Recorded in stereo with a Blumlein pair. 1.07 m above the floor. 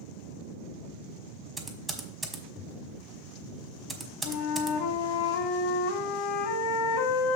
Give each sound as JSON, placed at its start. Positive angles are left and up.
{"t": 1.6, "sound": "typing on a keyboard", "azimuth_deg": -15, "distance_m": 1.2}
{"t": 4.2, "sound": "a flute", "azimuth_deg": 50, "distance_m": 1.0}